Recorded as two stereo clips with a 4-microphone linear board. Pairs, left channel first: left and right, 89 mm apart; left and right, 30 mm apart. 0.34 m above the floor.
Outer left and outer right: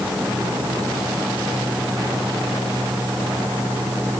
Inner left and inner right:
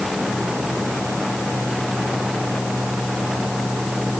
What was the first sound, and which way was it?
Only background noise.